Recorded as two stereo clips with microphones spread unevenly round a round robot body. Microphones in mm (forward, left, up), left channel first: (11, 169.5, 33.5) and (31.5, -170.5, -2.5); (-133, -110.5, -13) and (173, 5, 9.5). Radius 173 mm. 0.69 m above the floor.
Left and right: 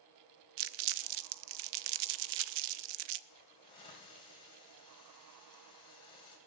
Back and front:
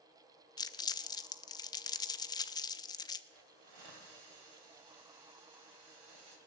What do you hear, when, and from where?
0.6 s crumpling: 80° right, 0.5 m
3.3 s a hiss: 15° left, 3 m